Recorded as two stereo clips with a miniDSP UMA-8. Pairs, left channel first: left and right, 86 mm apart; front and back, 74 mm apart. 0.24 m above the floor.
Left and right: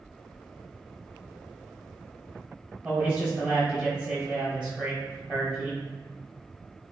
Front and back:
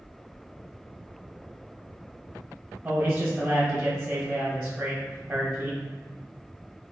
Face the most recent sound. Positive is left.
turn(degrees=-160)